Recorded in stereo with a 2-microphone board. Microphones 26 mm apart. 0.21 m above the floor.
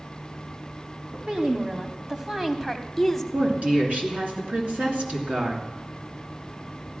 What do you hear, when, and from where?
1.1 s a woman speaking: 40° right (ahead or behind), 1.3 m; by 3.2 s 10° left (ahead or behind), 1.0 m
3.3 s a woman speaking: 60° right (ahead or behind), 3 m